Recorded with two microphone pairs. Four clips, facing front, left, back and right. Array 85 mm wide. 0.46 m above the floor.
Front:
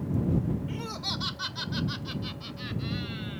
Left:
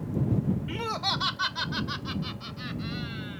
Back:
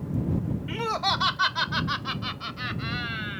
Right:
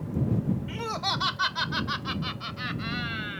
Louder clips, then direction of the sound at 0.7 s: Even, back 9 dB; 165° left.